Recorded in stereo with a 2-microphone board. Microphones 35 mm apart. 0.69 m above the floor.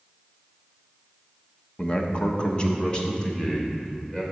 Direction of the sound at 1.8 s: 30° left (ahead or behind).